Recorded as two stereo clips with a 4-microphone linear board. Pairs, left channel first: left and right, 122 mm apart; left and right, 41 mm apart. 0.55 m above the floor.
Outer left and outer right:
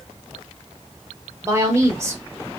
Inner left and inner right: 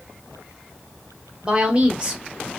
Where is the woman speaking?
25° right (ahead or behind), 0.9 m.